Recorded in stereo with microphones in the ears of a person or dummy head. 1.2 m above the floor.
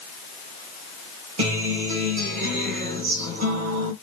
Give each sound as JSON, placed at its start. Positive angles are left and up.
{"t": 1.4, "sound": "a guitar", "side_deg": -40, "distance_m": 1.2}